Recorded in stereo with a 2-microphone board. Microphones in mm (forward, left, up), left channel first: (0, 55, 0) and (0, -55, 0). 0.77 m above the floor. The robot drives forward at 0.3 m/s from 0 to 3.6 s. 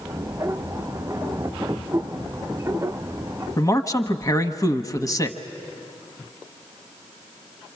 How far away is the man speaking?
About 1.0 m.